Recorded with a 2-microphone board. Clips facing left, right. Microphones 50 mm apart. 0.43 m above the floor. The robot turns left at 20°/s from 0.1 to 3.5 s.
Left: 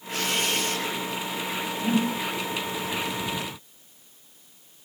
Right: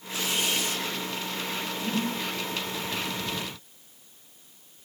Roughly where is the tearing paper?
Left.